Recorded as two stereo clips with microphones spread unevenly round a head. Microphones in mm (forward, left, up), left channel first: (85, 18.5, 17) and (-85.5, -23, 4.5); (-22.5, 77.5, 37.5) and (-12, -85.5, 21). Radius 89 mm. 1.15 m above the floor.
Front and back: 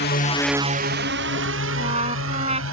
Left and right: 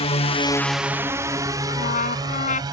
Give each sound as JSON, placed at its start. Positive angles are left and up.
{"t": 0.0, "sound": "a drone", "azimuth_deg": 40}
{"t": 1.7, "sound": "a trumpet", "azimuth_deg": 135}